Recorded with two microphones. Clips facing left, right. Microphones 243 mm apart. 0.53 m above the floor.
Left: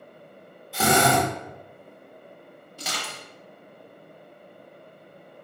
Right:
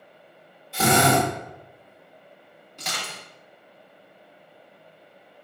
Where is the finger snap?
No finger snap in this recording.